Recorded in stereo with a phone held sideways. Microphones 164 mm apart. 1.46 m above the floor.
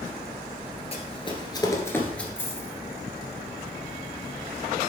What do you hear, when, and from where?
0.9 s running footsteps: 40° left (ahead or behind), 1.8 m; by 2.3 s 5° left (ahead or behind), 1.6 m
2.4 s a dropped coin: 15° left (ahead or behind), 1.6 m